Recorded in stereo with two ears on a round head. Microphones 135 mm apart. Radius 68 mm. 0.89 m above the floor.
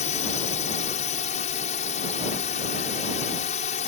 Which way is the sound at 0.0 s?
50° left (ahead or behind).